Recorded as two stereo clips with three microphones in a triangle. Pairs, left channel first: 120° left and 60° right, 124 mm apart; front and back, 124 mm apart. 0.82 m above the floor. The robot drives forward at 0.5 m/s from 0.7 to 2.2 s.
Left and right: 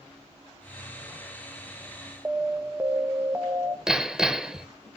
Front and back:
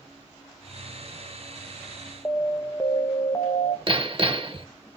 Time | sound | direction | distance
2.2 | an alarm | 20° right | 0.8 m
3.9 | hammering | 145° right | 0.7 m